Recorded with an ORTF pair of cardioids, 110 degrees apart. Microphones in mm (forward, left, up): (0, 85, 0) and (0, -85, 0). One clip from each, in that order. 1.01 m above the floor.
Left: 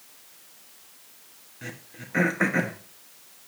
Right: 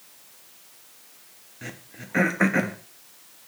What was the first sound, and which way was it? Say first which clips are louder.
Throat clearing: even; 10° right.